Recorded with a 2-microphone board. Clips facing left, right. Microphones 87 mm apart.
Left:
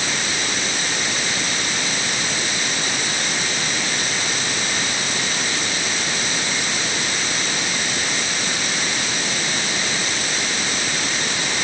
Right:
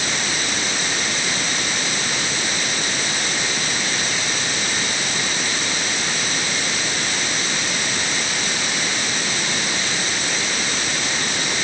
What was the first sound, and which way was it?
Only background noise.